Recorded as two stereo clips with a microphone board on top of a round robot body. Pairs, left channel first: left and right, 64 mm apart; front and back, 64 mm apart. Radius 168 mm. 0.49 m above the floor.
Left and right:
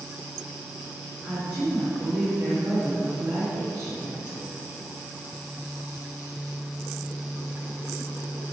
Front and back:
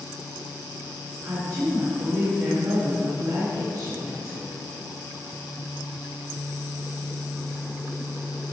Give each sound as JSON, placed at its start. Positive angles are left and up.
{"t": 1.2, "sound": "a woman speaking", "azimuth_deg": -150, "distance_m": 2.5}